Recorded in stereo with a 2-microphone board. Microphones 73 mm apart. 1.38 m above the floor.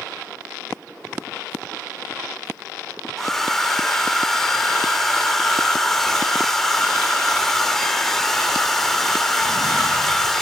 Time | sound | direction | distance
3.2 | a hair dryer | 5° left (ahead or behind) | 1.8 m